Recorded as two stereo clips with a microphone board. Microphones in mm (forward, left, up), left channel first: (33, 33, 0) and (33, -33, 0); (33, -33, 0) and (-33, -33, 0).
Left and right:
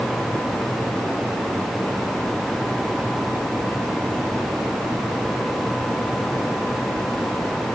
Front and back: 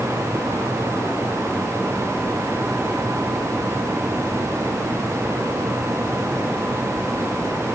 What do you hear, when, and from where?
Only background noise.